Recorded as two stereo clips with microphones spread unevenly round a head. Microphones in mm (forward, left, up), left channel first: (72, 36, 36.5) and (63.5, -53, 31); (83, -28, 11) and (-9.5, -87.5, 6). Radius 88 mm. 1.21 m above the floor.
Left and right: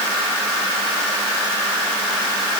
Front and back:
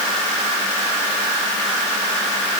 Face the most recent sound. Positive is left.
No sound to turn to.